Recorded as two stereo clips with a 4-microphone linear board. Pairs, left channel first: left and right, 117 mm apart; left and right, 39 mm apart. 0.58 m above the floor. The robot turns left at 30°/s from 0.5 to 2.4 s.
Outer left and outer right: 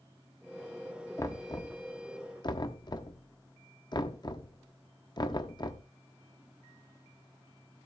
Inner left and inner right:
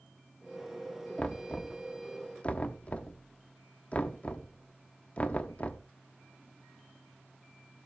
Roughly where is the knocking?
Left.